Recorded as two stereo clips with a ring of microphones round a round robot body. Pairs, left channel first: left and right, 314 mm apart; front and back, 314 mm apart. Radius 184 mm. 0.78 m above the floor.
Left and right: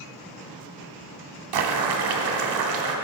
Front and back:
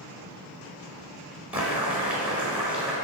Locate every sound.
1.5 s boiling: 95° right, 1.2 m